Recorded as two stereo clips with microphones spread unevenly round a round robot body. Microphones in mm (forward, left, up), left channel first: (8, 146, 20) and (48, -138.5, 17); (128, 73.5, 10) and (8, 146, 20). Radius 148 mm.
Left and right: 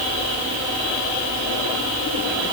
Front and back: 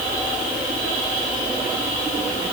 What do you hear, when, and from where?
Only background noise.